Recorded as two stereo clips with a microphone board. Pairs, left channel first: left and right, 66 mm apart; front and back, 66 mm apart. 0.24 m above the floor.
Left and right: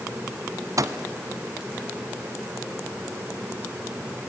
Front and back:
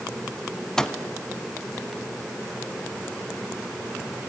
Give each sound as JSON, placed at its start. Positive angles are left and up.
{"t": 0.8, "sound": "a microwave", "azimuth_deg": -80, "distance_m": 1.3}